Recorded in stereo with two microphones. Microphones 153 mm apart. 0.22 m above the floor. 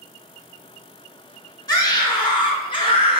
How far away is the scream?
About 2.0 m.